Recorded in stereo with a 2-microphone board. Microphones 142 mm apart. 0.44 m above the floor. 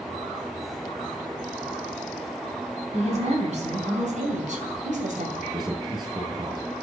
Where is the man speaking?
35° right (ahead or behind), 9.5 m.